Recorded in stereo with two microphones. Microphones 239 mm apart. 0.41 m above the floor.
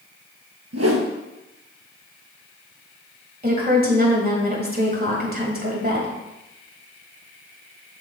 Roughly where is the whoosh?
Right.